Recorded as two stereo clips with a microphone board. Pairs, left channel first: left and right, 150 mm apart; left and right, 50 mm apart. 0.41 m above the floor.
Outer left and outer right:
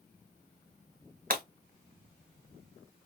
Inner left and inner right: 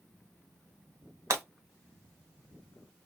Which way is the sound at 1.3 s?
65° right (ahead or behind).